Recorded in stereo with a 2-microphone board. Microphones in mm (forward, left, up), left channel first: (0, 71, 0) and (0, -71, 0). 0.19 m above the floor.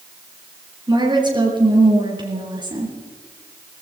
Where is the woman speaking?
30° right (ahead or behind), 4 m.